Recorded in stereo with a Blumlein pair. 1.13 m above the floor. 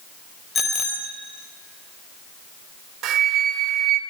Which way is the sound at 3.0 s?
35° right.